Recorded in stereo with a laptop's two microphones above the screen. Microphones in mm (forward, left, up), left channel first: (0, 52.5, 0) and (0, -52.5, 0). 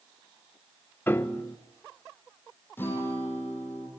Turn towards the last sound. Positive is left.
turn(degrees=20)  # may be behind; listen again after turning